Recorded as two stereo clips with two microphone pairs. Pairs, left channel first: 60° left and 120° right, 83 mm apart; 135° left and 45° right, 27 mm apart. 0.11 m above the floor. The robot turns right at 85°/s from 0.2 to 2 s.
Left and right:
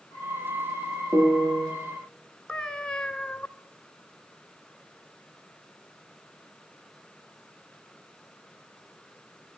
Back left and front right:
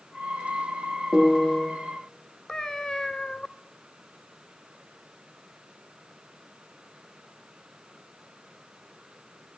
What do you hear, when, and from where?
1.1 s a piano: 165° left, 2.5 m; by 1.7 s 150° right, 2.5 m
2.5 s a cat meowing: 125° left, 0.5 m